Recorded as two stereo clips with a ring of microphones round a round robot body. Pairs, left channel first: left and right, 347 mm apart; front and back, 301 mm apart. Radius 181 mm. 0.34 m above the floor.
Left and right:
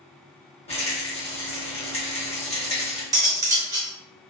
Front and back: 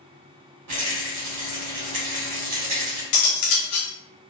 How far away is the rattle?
About 1.0 m.